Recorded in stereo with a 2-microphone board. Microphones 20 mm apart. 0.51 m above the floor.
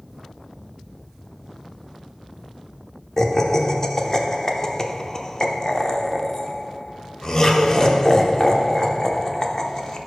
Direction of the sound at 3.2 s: 30° left (ahead or behind).